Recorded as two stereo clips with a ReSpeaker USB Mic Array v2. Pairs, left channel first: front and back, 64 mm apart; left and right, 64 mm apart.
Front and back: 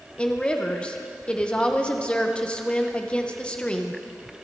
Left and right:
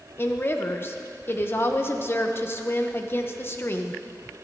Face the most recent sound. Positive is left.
turn(degrees=65)